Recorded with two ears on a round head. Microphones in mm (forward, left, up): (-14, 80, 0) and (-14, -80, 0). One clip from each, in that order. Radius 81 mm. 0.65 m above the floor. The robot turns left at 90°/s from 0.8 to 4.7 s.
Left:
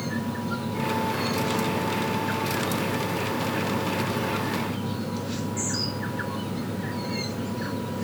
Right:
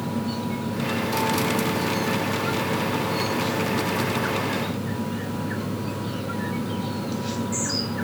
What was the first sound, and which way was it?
Only background noise.